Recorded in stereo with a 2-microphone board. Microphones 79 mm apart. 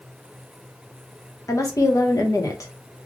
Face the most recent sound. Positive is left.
turn(degrees=45)  # may be behind; listen again after turning